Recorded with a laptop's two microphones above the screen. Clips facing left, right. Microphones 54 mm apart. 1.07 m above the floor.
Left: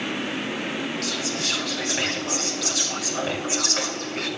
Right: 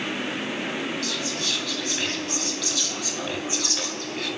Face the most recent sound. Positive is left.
turn(degrees=85)